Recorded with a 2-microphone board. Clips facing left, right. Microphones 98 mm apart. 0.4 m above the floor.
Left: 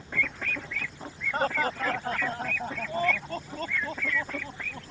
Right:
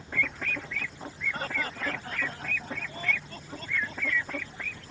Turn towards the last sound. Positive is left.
turn(degrees=60)  # may be behind; listen again after turning